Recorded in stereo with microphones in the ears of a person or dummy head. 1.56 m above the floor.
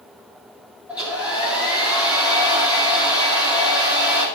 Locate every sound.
0.9 s a hair dryer: 5° right (ahead or behind), 4 m